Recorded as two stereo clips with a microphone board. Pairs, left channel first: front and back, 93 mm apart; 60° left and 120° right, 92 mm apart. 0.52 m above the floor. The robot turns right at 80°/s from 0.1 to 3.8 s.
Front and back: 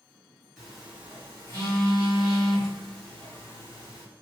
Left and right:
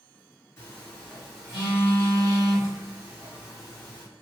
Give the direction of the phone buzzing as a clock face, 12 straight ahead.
9 o'clock.